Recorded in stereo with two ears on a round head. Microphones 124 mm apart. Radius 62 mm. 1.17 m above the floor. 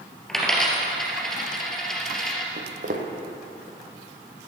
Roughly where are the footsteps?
Right.